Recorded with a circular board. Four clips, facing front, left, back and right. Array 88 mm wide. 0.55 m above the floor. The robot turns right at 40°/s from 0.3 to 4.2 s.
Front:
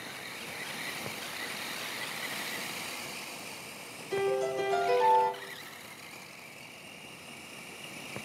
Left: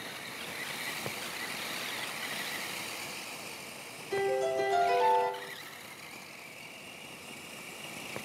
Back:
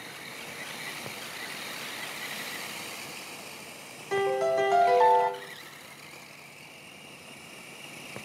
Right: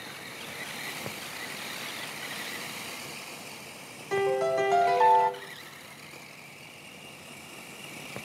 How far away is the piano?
About 1.2 m.